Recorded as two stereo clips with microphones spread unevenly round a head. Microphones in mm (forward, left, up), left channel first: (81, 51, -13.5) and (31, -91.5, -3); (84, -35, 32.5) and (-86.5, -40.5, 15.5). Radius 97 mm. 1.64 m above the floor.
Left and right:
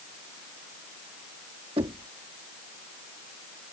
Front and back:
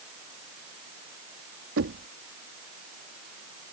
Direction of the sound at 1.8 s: 170° right.